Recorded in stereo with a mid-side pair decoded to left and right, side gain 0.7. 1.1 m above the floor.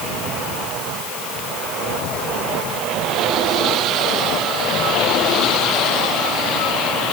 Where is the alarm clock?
No alarm clock in this recording.